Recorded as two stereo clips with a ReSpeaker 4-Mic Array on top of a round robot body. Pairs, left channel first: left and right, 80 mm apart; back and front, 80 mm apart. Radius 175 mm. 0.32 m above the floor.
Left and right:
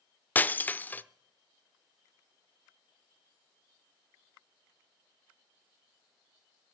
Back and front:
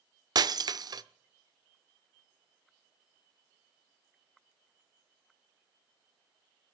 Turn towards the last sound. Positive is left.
turn(degrees=25)